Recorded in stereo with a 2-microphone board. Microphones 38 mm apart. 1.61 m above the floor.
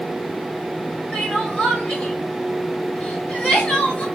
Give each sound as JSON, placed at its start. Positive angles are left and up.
{"t": 1.1, "sound": "crying", "side_deg": 35, "distance_m": 1.4}